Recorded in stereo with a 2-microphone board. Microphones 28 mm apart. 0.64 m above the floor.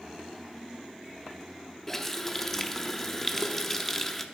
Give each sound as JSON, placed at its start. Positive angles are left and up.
{"t": 1.9, "sound": "a running tap", "side_deg": 10, "distance_m": 0.7}